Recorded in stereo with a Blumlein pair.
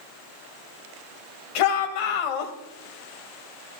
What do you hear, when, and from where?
1.6 s a shout: 45° left, 2 m